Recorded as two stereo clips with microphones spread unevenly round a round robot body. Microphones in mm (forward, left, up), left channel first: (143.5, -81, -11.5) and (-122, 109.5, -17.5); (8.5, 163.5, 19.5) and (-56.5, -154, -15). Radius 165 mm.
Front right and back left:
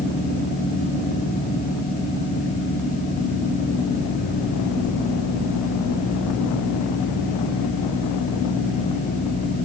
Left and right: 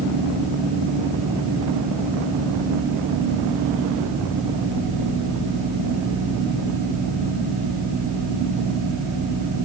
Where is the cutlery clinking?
I don't hear cutlery clinking.